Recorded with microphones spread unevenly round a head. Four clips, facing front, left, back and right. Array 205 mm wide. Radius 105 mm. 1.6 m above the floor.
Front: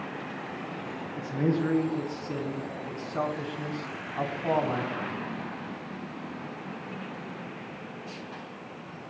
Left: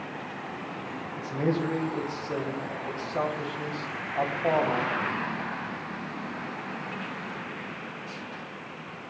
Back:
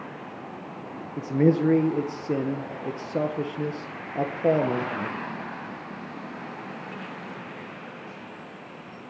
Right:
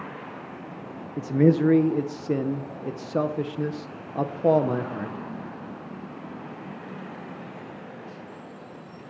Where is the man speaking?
125° right, 1.4 m.